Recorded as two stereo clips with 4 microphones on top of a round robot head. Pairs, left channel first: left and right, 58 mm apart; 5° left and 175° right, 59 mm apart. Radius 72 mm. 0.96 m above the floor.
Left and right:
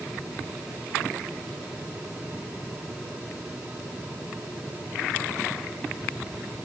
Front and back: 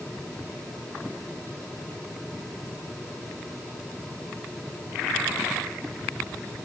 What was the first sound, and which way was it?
Only background noise.